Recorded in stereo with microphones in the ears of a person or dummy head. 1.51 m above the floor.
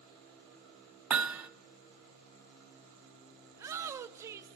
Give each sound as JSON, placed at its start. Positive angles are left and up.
{"t": 1.1, "sound": "hammering", "side_deg": -10, "distance_m": 0.6}
{"t": 3.5, "sound": "a shout", "side_deg": -10, "distance_m": 0.7}